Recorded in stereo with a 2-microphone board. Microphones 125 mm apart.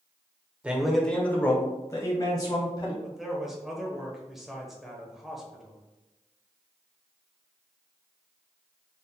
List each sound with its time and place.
0.6 s a man speaking: 10° right (ahead or behind), 0.8 m; by 2.9 s 30° left (ahead or behind), 2 m
3.0 s a man speaking: centre (ahead or behind), 1.1 m